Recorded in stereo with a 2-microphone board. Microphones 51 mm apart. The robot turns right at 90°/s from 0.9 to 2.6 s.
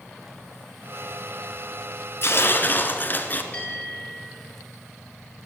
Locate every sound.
2.2 s tearing paper: 90° left, 1.8 m; by 3.4 s 125° left, 1.8 m
3.5 s a bell: 40° left (ahead or behind), 6.5 m